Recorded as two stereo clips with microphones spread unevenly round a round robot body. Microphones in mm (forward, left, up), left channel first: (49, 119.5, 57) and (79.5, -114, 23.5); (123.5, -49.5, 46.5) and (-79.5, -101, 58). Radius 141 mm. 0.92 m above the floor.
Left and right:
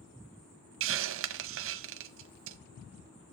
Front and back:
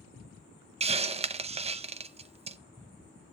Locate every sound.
0.8 s a hiss: 100° right, 0.5 m